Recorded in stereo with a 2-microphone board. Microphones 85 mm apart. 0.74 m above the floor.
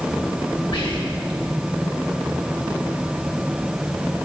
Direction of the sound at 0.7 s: 70° left (ahead or behind).